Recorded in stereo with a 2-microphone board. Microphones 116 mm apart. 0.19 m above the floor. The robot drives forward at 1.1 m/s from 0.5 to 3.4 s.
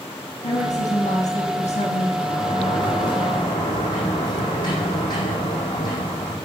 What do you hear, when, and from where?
0.4 s a woman speaking: 80° left, 7.5 m; by 2.1 s 70° left (ahead or behind), 8 m
2.2 s a sliding door: 45° left (ahead or behind), 8 m; by 6.3 s 35° left (ahead or behind), 9 m